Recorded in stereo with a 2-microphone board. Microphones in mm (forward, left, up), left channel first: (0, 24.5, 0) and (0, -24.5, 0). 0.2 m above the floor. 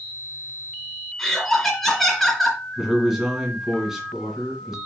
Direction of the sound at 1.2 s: Centre (ahead or behind).